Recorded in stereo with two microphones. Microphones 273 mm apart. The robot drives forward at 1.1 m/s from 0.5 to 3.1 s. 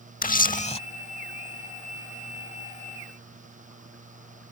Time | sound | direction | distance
0.2 | a camera shutter | 30° left (ahead or behind) | ?